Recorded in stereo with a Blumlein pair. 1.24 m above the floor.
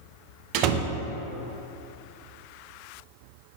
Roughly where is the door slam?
Ahead right.